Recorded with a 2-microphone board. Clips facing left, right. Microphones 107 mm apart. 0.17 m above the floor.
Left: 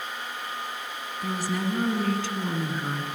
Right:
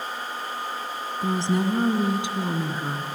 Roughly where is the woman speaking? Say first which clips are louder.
Right 5 dB; right.